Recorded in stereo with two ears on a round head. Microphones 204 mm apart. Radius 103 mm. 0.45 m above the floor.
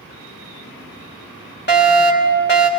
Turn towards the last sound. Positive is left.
turn(degrees=50)  # may be behind; listen again after turning